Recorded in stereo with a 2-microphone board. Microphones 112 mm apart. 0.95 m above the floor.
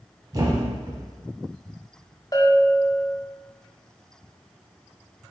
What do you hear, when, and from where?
0.3 s a thud: 30° right (ahead or behind), 0.9 m
2.3 s a bell: 35° left (ahead or behind), 0.6 m